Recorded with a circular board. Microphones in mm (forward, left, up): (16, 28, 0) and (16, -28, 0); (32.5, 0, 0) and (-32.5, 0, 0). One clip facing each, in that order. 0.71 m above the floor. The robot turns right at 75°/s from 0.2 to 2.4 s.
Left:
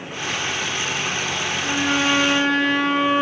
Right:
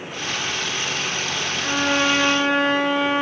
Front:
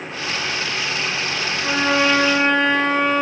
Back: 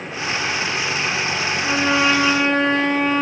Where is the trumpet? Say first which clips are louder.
Right 1 dB, even; 50° right, 3 m; by 3.2 s 10° left, 3 m.